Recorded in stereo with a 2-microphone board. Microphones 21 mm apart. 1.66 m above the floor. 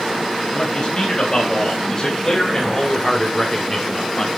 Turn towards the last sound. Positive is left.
turn(degrees=20)  # may be behind; listen again after turning